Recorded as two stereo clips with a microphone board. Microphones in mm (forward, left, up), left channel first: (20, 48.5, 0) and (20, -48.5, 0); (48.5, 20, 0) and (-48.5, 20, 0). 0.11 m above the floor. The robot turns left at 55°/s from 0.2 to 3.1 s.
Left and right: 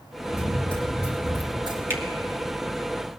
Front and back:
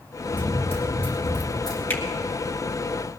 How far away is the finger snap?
About 1.7 m.